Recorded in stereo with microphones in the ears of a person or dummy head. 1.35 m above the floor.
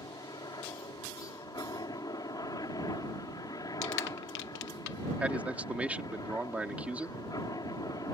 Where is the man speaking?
5° right (ahead or behind).